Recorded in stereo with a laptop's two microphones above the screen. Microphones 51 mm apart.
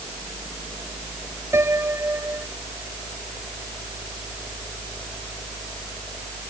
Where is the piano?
65° right (ahead or behind).